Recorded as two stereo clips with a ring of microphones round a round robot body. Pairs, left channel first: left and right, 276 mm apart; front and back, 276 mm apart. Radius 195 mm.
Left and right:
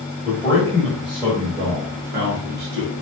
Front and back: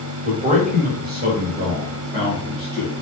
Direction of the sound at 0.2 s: 145° left.